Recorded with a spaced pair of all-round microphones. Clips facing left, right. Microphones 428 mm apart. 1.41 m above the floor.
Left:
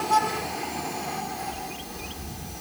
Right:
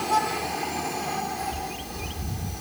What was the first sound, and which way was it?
A bird, 25° right (ahead or behind).